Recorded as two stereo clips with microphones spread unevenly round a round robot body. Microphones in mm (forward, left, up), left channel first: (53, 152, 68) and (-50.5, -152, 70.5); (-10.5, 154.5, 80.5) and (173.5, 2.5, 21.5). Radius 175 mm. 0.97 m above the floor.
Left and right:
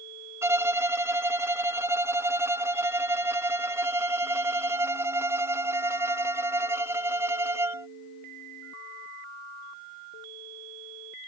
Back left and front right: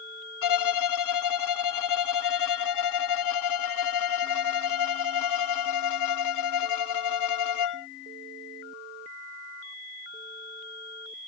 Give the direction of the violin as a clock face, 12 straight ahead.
6 o'clock.